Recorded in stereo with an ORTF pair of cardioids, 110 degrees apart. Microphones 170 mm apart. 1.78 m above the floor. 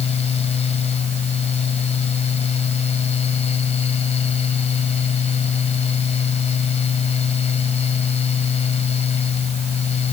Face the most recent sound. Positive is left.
turn(degrees=40)